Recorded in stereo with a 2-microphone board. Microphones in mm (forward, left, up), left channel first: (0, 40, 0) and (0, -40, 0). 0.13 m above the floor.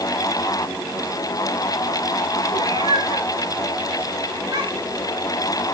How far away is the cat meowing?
About 5.5 m.